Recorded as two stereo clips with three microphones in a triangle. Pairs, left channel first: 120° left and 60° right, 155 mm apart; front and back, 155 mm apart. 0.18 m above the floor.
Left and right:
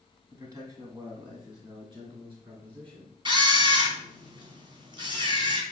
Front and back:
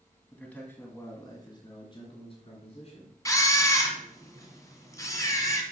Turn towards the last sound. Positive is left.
turn(degrees=-50)